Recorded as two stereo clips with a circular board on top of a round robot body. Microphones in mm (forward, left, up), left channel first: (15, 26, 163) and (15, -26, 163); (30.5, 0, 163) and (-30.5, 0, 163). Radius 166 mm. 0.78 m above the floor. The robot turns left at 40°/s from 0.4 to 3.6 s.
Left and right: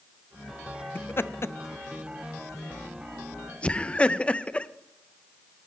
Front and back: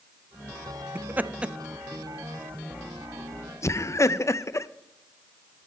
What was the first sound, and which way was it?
Laughter, 130° left.